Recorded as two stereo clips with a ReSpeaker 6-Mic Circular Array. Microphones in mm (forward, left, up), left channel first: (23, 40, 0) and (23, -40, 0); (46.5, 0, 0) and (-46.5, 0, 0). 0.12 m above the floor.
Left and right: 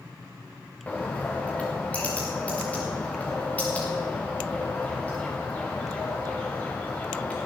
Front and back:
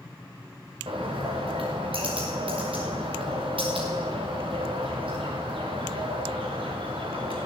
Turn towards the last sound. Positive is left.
turn(degrees=160)